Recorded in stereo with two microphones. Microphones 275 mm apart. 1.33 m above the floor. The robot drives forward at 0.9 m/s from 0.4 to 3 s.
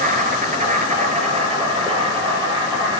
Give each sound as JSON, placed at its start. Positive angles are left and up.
{"t": 0.0, "sound": "an insect", "side_deg": -30, "distance_m": 3.0}